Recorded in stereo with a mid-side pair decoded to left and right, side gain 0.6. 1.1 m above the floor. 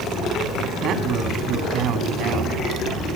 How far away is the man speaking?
About 2.5 m.